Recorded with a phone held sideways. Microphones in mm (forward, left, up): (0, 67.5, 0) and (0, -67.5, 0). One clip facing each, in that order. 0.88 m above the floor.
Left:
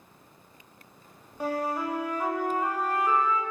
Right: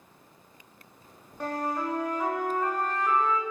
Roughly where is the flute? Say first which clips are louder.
Left 1 dB; centre.